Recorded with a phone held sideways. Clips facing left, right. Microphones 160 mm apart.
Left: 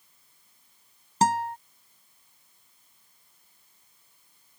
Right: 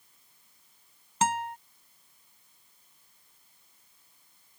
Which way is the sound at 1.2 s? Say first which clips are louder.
Left 4 dB; 35° left (ahead or behind).